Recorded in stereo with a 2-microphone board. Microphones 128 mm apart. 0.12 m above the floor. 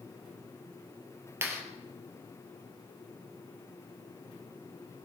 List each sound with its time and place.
1.4 s a clap: 20° right (ahead or behind), 3 m